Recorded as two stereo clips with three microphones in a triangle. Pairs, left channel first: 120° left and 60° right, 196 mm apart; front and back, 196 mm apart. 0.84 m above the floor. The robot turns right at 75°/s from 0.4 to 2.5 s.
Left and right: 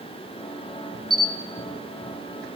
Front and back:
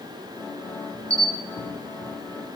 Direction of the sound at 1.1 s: 140° left.